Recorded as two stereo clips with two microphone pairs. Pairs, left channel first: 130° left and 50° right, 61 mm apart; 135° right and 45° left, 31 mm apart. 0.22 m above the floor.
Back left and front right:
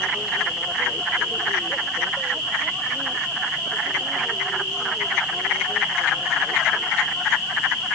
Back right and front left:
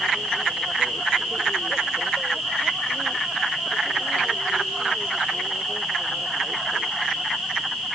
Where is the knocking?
I don't hear knocking.